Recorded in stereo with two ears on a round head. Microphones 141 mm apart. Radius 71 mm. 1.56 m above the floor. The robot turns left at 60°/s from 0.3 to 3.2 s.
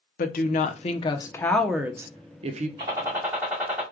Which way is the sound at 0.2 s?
80° left.